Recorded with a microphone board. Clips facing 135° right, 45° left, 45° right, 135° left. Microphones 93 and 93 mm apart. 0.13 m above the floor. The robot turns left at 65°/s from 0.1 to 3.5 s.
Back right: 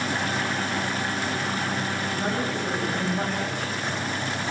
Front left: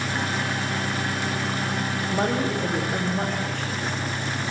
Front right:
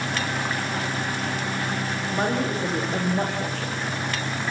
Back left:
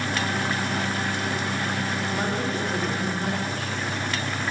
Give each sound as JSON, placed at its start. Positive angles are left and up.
{"t": 2.1, "sound": "a woman speaking", "azimuth_deg": 30, "distance_m": 9.0}